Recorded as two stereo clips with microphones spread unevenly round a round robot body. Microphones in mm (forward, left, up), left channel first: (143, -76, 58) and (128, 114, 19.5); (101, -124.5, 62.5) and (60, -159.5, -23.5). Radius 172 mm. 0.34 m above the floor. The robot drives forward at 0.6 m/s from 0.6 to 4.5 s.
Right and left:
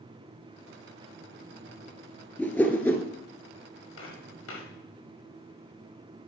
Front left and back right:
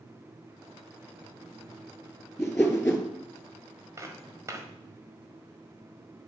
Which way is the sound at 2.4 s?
5° right.